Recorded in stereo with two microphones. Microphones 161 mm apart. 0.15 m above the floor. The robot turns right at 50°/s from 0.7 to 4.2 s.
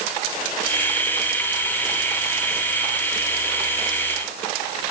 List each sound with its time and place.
Only background noise.